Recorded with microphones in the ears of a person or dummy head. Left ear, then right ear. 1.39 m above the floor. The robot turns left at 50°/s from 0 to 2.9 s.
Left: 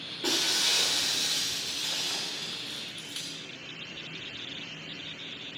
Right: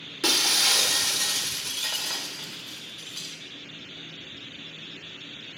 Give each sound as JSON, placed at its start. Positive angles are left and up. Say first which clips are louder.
{"t": 0.2, "sound": "breaking glass", "louder": "right 5 dB", "azimuth_deg": -75, "distance_m": 1.3}